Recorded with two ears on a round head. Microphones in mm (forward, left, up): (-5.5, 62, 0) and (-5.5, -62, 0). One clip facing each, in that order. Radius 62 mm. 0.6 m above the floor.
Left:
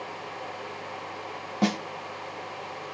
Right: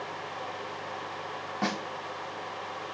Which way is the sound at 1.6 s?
30° left (ahead or behind).